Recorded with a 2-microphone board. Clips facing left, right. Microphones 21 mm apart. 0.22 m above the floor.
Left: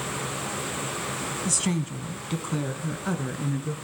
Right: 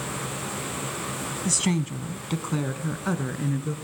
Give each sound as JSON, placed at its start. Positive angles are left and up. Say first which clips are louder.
{"t": 1.4, "sound": "a woman speaking", "louder": "right 3 dB", "side_deg": -15, "distance_m": 1.5}